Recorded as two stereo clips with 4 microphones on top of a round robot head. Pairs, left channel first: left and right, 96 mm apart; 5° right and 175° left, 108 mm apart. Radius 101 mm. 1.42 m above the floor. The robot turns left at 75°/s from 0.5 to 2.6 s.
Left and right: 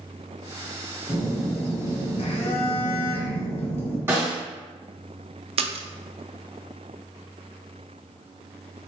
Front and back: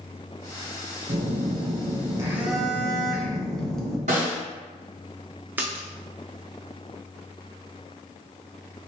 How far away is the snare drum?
About 2.5 m.